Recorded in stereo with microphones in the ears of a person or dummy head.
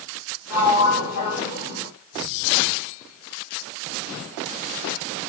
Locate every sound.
0.5 s a sliding door: 55° left (ahead or behind), 2.5 m